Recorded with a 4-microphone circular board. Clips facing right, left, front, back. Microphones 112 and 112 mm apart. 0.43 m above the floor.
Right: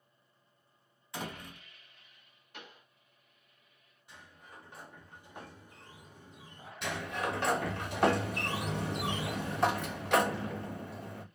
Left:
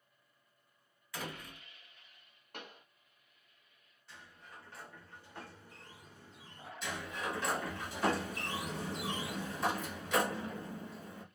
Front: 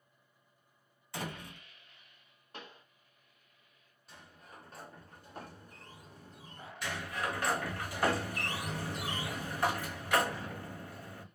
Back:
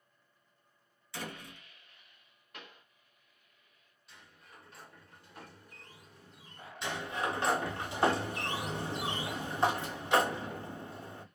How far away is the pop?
About 0.8 m.